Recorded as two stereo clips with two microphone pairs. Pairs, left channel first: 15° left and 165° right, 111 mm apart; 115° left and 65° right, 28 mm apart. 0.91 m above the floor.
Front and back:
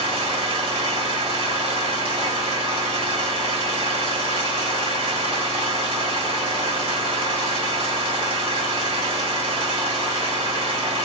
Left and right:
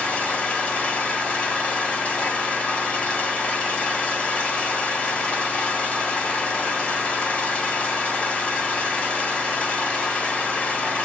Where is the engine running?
160° left, 1.9 m.